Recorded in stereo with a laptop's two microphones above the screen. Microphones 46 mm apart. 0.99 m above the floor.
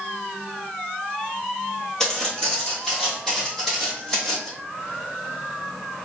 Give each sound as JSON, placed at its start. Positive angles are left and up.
{"t": 2.0, "sound": "footsteps", "side_deg": 10, "distance_m": 1.2}